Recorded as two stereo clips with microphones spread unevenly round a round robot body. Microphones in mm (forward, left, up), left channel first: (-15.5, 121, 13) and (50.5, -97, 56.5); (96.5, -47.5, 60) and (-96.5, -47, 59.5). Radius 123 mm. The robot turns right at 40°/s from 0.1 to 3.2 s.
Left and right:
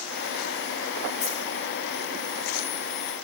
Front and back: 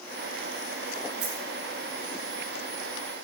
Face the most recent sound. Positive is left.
turn(degrees=-110)